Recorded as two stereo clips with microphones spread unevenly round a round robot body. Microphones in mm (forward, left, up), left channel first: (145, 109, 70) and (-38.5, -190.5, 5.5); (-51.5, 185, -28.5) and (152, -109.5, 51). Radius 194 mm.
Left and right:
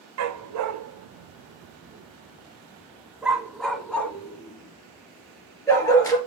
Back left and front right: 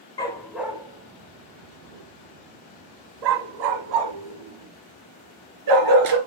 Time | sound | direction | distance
0.2 | a dog barking | 160° right | 0.8 m